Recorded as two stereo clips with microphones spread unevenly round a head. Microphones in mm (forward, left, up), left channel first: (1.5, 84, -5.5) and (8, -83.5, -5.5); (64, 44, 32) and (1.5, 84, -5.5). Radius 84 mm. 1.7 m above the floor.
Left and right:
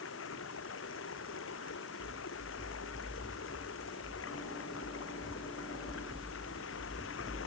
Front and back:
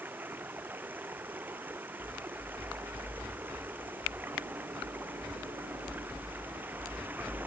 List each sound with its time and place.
0.0 s running water: 80° left